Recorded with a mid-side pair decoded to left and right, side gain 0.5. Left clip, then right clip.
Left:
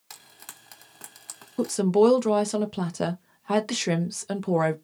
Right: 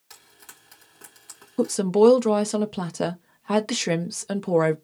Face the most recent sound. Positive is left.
turn(degrees=-10)